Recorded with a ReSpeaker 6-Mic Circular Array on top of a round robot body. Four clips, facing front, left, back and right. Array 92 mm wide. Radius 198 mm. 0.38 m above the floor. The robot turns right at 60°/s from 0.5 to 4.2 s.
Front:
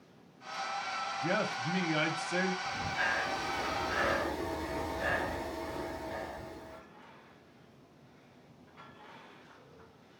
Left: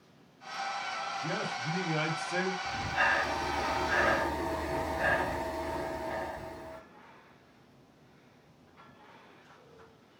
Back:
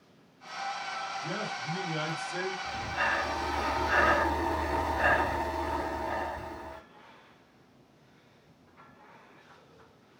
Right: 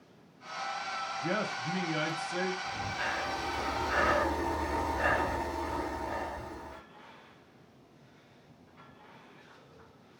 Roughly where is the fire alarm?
I don't hear a fire alarm.